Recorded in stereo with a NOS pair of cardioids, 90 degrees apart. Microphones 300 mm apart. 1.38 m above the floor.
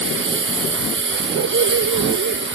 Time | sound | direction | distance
0.0 | a lawn mower | 40° right | ?
1.3 | a dog barking | 55° right | ?